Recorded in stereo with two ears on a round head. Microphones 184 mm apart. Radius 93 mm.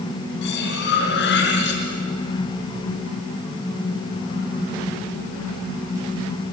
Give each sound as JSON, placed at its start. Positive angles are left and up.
{"t": 0.4, "sound": "cutlery clinking", "side_deg": 60, "distance_m": 4.5}